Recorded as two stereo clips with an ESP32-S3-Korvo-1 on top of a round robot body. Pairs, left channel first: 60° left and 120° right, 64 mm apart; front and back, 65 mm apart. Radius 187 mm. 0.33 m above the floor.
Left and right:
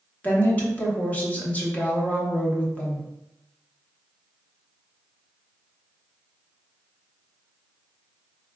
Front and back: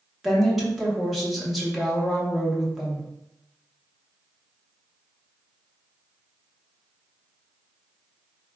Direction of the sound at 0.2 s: 90° left.